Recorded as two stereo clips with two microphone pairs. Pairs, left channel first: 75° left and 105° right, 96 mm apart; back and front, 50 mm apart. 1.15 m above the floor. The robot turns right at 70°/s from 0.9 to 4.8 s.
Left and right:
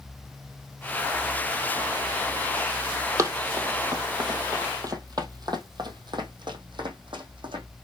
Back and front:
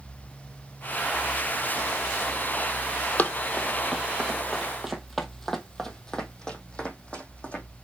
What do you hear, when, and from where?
3.2 s running footsteps: 145° right, 1.6 m; by 7.6 s 120° right, 2.5 m